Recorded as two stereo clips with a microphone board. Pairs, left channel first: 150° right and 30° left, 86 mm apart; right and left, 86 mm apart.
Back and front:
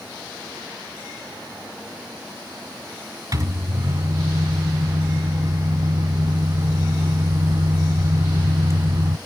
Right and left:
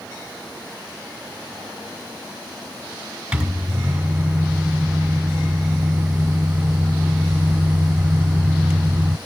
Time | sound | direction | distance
3.3 | a microwave | 20° left | 1.0 m